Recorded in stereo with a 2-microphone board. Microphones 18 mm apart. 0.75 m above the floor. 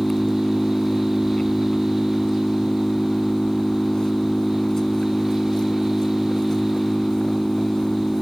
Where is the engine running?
35° left (ahead or behind).